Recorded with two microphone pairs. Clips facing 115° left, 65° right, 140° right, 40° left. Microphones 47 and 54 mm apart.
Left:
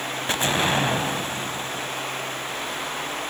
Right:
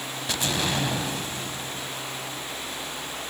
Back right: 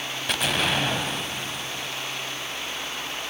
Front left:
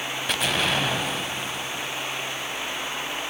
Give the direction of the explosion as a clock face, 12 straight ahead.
8 o'clock.